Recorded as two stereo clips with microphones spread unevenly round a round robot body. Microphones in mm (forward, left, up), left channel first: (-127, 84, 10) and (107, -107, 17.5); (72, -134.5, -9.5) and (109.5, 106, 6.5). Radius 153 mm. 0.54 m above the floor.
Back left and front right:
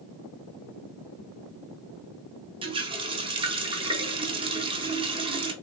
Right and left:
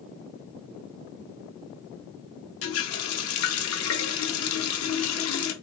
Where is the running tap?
110° right, 0.7 m.